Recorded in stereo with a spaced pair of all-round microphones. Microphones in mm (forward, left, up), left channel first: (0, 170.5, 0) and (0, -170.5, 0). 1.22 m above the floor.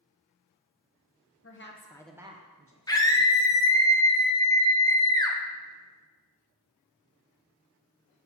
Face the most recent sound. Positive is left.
turn(degrees=10)  # may be behind; listen again after turning